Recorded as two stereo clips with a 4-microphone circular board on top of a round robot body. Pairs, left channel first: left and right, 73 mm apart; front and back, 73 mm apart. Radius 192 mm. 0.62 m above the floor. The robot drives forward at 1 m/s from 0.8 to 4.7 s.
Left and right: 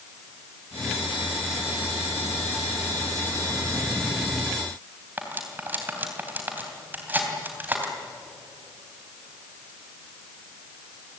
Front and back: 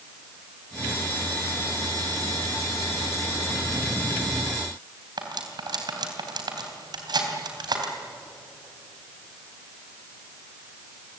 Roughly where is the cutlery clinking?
Behind right.